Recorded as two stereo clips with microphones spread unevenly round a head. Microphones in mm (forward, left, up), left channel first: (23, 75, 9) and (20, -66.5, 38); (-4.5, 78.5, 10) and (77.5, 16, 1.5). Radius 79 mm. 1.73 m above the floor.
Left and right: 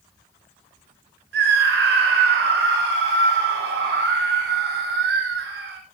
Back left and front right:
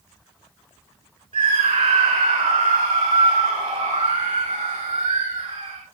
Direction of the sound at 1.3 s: 95° right.